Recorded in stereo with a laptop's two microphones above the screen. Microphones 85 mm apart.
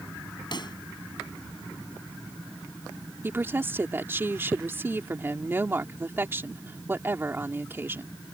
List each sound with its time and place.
0.5 s a pop: 55° left (ahead or behind)
3.2 s a woman speaking: 25° right (ahead or behind)